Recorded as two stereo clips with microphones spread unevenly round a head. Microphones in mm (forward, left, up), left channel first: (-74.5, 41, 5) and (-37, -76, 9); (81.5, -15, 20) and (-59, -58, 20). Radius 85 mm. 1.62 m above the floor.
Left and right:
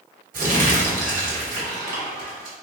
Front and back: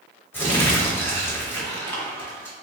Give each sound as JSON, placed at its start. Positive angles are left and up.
{"t": 0.3, "sound": "crumpling", "azimuth_deg": -60, "distance_m": 1.1}